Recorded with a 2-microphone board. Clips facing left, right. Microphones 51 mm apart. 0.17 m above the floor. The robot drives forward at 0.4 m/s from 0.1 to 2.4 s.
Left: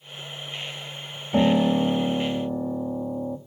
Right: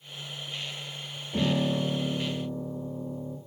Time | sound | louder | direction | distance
1.3 | a piano | left 7 dB | 80° left | 0.8 m